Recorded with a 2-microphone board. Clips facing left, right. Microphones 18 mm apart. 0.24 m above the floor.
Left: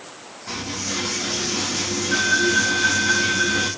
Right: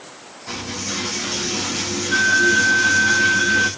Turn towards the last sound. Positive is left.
turn(degrees=-5)  # may be behind; listen again after turning